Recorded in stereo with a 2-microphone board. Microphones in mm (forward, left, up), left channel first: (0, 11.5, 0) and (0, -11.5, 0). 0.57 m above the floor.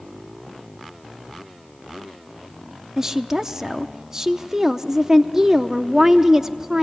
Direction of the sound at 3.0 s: 25° right (ahead or behind).